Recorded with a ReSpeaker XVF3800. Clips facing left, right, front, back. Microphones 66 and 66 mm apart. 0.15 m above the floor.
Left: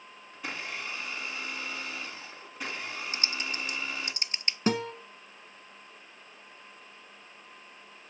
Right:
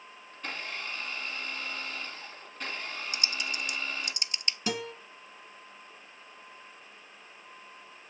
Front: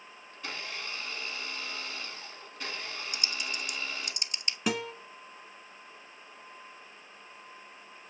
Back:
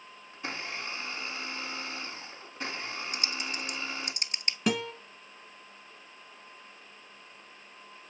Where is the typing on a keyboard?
140° left, 0.6 m.